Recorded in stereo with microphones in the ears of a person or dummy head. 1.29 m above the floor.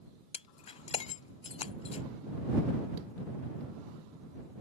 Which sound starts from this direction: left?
Breaking glass, at 0.3 s.